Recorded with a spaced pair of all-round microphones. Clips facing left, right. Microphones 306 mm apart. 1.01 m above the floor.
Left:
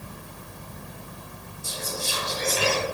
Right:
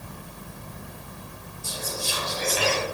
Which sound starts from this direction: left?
Whispering, at 1.6 s.